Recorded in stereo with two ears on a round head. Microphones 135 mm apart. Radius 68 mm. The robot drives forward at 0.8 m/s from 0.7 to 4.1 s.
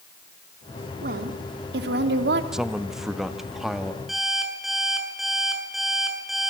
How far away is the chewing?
No chewing in this recording.